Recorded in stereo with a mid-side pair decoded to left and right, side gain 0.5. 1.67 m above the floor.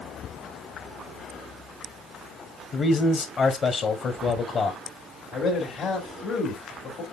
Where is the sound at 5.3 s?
55° left, 2.5 m.